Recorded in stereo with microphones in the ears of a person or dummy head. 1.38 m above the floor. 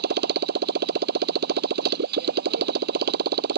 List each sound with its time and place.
0.0 s a motorcycle: 60° right (ahead or behind)